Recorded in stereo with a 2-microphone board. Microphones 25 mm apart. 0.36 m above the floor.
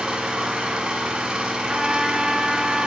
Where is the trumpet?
25° right (ahead or behind), 1.0 m.